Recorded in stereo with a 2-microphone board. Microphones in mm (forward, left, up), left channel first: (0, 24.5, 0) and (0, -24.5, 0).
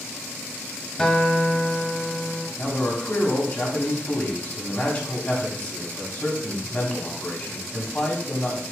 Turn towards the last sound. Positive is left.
turn(degrees=30)  # may be behind; listen again after turning